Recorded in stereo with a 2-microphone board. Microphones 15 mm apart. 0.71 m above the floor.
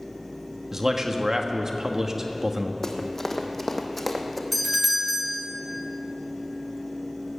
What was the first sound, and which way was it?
A man speaking, 35° right (ahead or behind).